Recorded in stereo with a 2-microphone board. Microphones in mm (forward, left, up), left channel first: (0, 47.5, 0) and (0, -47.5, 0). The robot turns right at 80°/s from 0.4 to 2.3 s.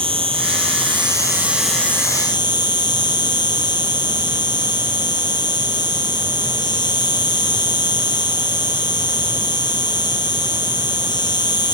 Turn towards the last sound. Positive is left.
turn(degrees=50)